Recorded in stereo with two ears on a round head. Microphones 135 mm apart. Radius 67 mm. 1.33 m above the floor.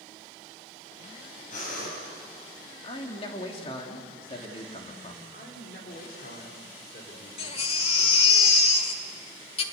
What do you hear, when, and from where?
1.5 s breathing: 55° left (ahead or behind), 7.5 m
2.8 s a man speaking: 40° left (ahead or behind), 3 m
5.3 s a man speaking: 65° left (ahead or behind), 4.5 m
7.4 s a baby crying: 40° left (ahead or behind), 1.6 m